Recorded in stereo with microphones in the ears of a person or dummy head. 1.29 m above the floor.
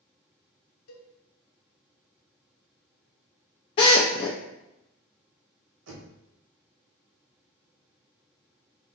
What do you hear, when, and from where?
0.9 s a cowbell: 70° left (ahead or behind), 0.8 m
3.8 s a drill: 30° left (ahead or behind), 0.6 m
5.9 s knocking: 80° right, 1.3 m